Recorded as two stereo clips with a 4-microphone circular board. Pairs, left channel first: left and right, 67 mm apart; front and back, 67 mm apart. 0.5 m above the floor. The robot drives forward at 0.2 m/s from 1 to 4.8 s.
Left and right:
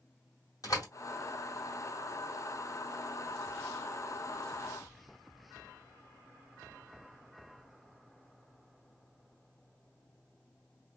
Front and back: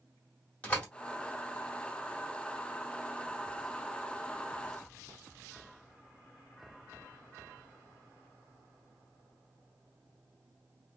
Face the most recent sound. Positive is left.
turn(degrees=95)